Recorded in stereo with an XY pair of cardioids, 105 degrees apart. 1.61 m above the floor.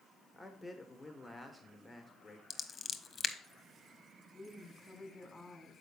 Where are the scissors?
35° left, 0.9 m.